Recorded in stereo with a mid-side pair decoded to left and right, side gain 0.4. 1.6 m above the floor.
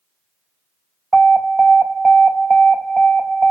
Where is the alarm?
15° right, 1.4 m.